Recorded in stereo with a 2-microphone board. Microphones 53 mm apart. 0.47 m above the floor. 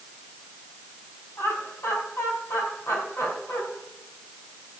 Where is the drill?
No drill in this recording.